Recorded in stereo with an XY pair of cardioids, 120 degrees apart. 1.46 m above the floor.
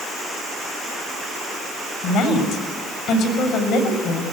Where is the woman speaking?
65° left, 7.5 m.